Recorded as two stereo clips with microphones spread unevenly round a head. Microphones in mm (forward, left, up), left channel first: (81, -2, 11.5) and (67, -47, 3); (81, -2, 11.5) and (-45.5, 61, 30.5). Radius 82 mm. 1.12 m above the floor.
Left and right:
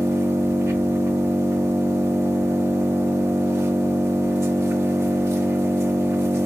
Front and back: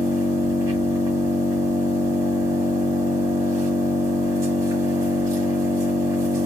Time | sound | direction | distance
0.0 | an engine running | 150° right | 1.0 m